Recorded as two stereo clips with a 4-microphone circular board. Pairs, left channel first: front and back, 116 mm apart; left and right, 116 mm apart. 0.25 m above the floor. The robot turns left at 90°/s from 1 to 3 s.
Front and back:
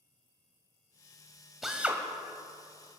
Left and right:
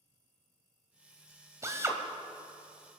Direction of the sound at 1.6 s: 95° right.